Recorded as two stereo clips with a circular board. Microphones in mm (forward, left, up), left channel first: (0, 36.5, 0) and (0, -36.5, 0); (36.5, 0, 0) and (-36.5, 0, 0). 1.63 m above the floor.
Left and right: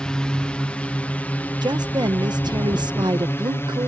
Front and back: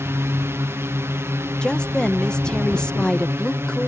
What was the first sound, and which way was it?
A drone, 160° left.